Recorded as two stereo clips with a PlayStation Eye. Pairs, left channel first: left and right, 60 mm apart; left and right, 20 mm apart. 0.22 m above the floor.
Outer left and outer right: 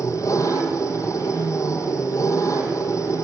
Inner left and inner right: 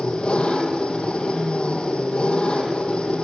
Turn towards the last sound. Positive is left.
turn(degrees=70)  # may be behind; listen again after turning